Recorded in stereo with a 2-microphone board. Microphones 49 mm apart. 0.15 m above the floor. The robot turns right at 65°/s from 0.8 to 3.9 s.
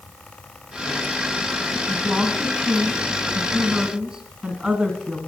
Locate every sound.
1.9 s a woman speaking: 170° right, 2.0 m; by 5.2 s 35° right, 2.0 m